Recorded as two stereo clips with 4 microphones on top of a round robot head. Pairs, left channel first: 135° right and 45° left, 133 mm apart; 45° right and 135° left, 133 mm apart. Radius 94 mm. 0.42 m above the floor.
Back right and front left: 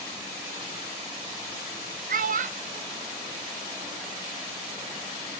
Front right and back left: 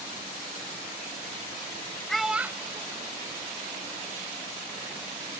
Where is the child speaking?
45° left; by 4.0 s 110° left.